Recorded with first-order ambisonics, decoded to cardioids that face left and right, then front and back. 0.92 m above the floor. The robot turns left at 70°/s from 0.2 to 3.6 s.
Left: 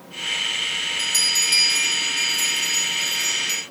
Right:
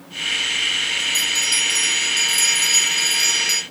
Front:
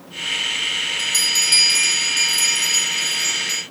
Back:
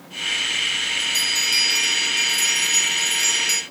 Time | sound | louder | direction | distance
1.0 | a bell | right 1 dB, front 4 dB | 50° left | 4 m